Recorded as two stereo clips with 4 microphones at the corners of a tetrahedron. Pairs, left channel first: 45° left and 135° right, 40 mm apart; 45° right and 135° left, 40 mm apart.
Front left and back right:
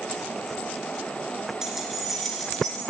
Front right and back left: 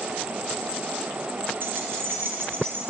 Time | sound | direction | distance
1.6 | keys jangling | 150° left | 2.5 m